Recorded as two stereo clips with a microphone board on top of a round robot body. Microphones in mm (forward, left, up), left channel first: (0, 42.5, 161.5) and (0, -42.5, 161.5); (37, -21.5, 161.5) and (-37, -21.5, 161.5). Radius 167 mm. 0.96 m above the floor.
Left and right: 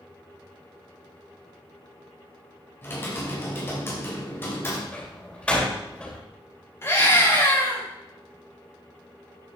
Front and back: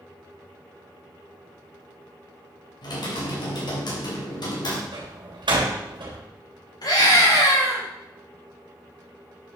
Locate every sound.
2.8 s typing on a keyboard: 25° left, 3.5 m
4.9 s a door slam: 170° left, 3 m
6.8 s a scream: 30° left, 7 m